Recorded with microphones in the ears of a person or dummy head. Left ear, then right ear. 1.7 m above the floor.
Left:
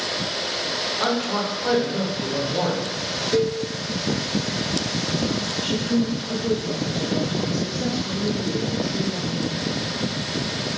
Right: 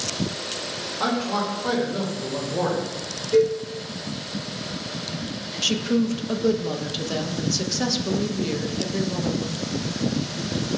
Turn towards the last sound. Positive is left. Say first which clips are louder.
# right 5 dB
turn(degrees=-60)  # may be behind; listen again after turning